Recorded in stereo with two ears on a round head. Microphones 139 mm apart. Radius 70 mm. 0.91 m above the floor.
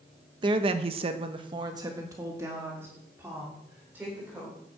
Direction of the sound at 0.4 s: 30° right (ahead or behind).